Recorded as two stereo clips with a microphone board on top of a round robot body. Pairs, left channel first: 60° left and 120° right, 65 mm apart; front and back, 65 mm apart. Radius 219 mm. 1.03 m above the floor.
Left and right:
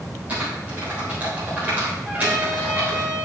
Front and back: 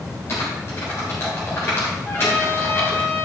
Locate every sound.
0.3 s typing on a keyboard: 50° right, 1.5 m
2.0 s a trumpet: 50° right, 2.5 m